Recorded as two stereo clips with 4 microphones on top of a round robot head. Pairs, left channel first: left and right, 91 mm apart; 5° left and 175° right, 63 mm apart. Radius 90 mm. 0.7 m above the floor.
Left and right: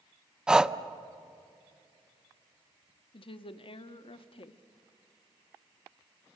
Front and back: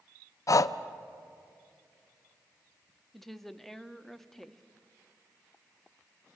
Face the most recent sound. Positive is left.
turn(degrees=90)